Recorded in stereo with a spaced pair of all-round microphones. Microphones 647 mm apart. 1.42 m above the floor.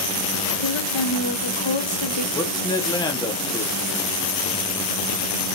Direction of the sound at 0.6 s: 45° left (ahead or behind).